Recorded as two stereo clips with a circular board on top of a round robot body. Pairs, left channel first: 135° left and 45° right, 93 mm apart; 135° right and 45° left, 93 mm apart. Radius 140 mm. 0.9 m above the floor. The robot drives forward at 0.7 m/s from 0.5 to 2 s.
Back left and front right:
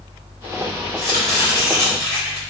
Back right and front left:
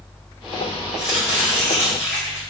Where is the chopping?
100° left, 0.7 m; by 2.4 s 165° left, 1.0 m.